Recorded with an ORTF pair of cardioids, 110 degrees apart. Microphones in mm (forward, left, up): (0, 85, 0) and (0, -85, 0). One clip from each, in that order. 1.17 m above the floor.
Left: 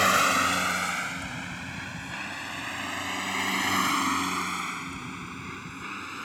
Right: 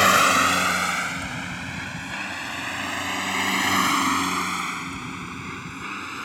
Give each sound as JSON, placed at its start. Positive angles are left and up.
{"t": 0.0, "sound": "a vehicle", "azimuth_deg": -30}